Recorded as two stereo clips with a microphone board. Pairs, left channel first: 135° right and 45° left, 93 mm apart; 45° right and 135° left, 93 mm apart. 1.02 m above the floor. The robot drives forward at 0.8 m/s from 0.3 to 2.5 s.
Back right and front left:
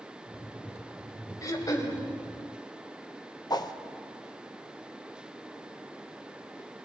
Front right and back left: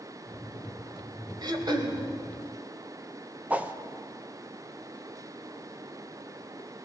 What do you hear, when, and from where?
1.4 s throat clearing: 175° left, 1.9 m
3.5 s a whoosh: 155° right, 0.8 m